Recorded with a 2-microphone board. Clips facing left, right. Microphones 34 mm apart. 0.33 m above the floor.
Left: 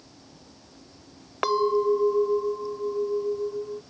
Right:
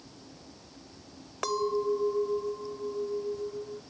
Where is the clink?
30° left (ahead or behind).